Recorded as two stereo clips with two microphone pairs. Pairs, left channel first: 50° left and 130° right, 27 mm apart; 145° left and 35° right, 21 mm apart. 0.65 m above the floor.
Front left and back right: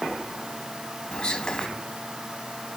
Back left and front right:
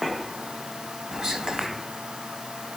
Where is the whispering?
Straight ahead, 0.8 m.